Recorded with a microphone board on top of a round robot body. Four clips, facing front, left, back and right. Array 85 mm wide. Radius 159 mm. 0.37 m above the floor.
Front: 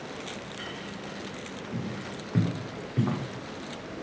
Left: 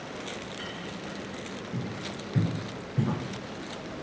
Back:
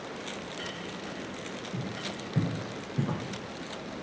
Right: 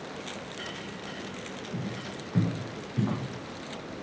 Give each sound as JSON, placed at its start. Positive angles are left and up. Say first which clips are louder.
{"t": 1.7, "sound": "footsteps", "louder": "even, front 3 dB", "azimuth_deg": -10, "distance_m": 5.0}